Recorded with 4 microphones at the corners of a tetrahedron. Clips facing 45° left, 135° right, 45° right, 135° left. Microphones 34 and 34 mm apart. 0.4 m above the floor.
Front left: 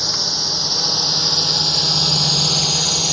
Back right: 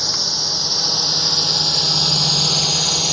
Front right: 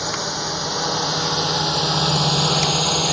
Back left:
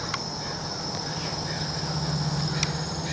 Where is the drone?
40° right; by 3.1 s 50° right.